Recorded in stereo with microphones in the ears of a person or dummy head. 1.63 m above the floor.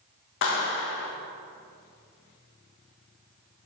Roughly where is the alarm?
No alarm in this recording.